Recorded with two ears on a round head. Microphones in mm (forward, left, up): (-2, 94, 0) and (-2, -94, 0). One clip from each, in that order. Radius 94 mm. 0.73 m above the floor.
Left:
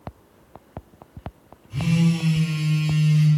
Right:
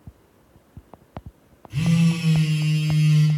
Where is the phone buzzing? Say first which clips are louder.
Even; 25° right (ahead or behind), 0.7 m.